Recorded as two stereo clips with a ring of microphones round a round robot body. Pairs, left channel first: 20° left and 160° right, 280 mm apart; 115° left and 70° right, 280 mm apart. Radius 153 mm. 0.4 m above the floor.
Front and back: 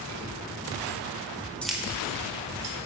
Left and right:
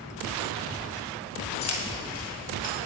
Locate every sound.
1.6 s keys jangling: 110° left, 1.3 m; by 2.8 s 160° left, 2 m